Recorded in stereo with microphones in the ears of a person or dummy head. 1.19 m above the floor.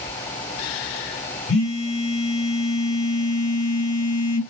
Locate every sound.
1.5 s a phone buzzing: 70° left (ahead or behind), 0.8 m